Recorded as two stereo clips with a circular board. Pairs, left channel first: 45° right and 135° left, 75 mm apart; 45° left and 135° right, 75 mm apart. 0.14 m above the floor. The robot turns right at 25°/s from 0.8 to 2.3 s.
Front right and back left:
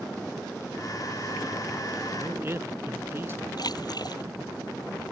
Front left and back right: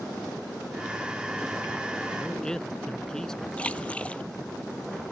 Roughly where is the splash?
Ahead right.